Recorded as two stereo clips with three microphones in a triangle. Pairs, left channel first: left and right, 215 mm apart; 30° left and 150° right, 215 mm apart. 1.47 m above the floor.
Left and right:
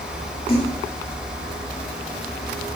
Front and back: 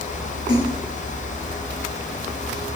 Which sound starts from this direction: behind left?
A splash, at 0.5 s.